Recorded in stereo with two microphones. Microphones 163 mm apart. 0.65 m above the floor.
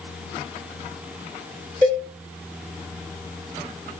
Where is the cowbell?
65° right (ahead or behind), 1.2 m.